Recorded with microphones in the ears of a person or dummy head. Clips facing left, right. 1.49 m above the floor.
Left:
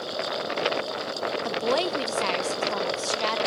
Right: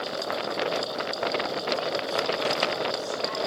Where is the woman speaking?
75° left (ahead or behind), 1.1 m; by 3.4 s 85° left, 2 m.